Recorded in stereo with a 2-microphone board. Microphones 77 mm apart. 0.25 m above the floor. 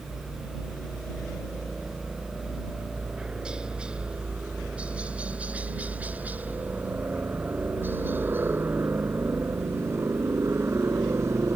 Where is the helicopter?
Centre (ahead or behind); by 11.6 s 40° right (ahead or behind).